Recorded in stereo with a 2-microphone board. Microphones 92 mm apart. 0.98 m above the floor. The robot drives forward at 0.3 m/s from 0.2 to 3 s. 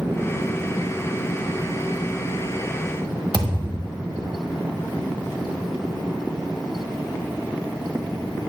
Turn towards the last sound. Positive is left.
turn(degrees=-55)  # may be behind; listen again after turning